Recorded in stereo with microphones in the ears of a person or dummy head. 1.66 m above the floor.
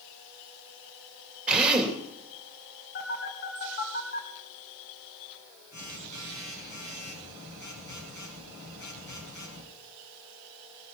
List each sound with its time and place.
1.5 s a drill: centre (ahead or behind), 2.5 m
3.0 s a phone buzzing: 45° left (ahead or behind), 2 m